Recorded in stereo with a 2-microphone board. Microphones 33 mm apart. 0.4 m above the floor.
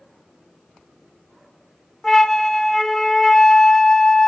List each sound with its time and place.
2.0 s a flute: 15° left (ahead or behind), 0.7 m